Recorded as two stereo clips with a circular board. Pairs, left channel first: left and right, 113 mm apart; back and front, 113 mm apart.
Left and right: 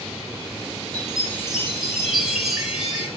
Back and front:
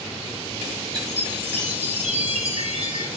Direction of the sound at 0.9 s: 5° right.